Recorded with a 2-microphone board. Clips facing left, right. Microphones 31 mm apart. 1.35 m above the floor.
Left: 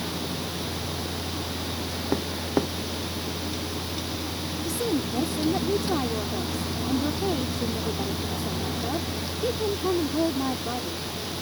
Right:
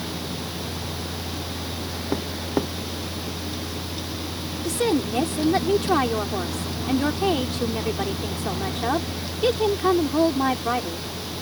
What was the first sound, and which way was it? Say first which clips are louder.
A woman speaking: right 5 dB; 85° right.